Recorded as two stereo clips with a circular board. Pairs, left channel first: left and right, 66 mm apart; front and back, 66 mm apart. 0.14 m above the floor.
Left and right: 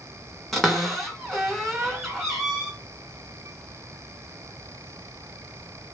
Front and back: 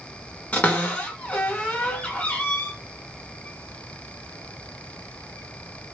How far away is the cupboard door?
About 1.7 m.